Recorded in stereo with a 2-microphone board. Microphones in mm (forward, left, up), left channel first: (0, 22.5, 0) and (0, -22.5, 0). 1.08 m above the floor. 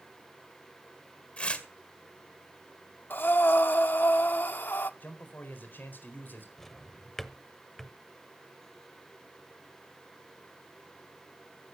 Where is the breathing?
50° left (ahead or behind), 0.8 m.